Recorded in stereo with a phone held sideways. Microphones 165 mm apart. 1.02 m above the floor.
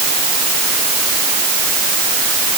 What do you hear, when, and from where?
Only background noise.